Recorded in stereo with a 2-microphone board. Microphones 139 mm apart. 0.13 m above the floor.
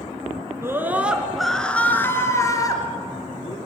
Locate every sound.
0.6 s a scream: 20° right (ahead or behind), 1.5 m; by 3.6 s 35° left (ahead or behind), 2.5 m